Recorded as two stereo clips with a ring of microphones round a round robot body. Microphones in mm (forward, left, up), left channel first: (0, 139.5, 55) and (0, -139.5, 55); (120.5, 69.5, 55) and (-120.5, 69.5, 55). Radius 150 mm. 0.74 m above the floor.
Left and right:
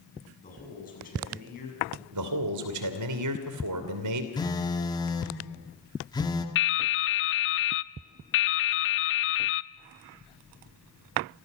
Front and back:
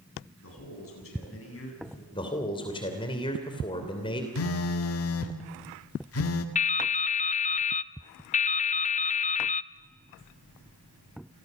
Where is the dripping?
55° left, 0.6 m.